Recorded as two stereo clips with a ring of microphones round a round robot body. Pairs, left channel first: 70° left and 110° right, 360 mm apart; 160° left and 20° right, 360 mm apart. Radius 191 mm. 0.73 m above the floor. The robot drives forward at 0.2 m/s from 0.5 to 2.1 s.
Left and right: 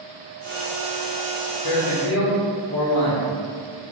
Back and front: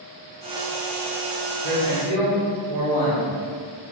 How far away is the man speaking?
About 1.9 m.